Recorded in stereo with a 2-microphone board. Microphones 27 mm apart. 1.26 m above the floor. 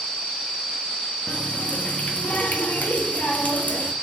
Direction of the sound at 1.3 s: 80° left.